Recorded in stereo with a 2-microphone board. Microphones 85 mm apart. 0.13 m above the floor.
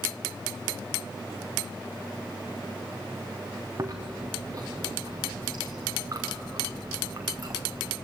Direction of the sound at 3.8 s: 40° right (ahead or behind).